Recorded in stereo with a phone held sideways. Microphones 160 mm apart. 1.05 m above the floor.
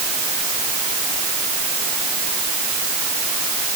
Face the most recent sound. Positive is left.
No sound to turn to.